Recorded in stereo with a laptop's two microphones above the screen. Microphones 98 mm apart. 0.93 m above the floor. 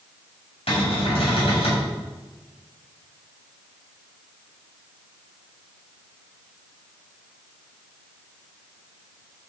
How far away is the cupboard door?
About 3 m.